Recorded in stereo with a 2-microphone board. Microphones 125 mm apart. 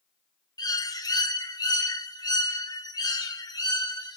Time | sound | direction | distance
0.6 | a bird | 35° left (ahead or behind) | 1.1 m